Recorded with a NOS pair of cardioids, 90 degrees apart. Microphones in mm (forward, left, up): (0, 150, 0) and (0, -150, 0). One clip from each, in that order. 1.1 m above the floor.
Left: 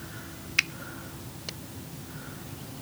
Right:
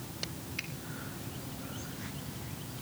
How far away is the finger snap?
About 0.9 m.